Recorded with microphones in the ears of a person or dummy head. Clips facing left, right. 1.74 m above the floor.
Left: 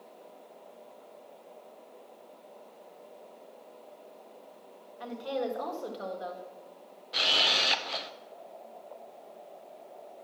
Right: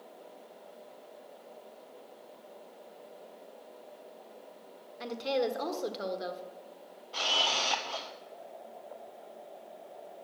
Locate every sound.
5.0 s a woman speaking: 20° right (ahead or behind), 1.3 m
7.1 s a camera shutter: 30° left (ahead or behind), 0.6 m